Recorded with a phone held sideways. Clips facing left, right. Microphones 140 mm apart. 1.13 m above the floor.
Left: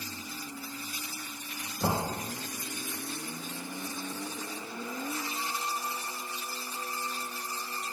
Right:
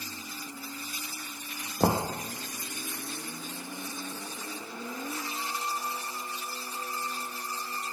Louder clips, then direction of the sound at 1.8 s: Right 4 dB; 65° right (ahead or behind).